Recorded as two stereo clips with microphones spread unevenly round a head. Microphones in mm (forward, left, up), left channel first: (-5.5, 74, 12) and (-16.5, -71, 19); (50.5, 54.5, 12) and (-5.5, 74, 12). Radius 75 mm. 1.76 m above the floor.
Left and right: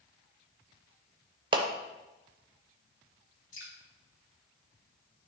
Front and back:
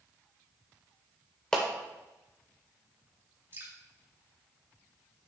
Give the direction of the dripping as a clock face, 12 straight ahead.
8 o'clock.